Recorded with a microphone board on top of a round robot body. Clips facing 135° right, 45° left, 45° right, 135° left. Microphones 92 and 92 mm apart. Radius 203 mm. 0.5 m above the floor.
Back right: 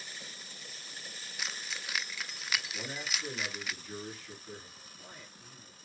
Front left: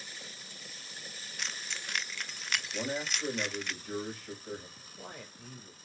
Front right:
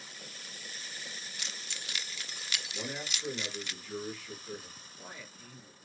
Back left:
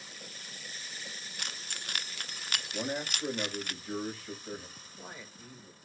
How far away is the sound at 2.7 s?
About 4.5 m.